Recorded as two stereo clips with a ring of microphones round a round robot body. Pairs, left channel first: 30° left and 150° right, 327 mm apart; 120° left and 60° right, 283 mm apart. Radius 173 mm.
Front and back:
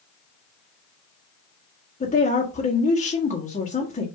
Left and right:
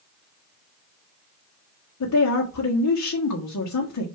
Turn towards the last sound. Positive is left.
turn(degrees=95)